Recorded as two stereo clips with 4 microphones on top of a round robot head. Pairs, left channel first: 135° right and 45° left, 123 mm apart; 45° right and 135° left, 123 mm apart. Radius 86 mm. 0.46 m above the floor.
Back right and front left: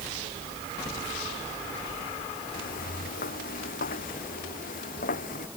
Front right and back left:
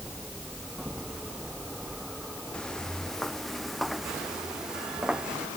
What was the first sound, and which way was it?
Footsteps, 130° right.